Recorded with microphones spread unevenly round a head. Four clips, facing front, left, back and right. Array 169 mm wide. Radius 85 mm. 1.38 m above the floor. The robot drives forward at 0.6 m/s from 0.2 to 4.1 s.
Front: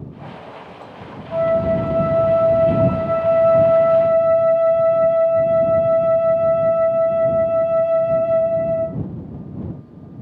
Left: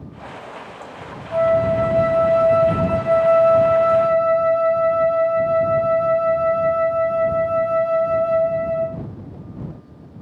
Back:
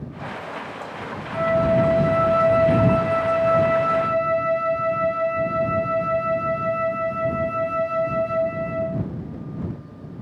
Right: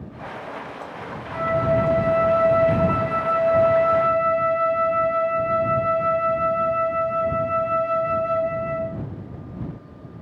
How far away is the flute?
About 4 m.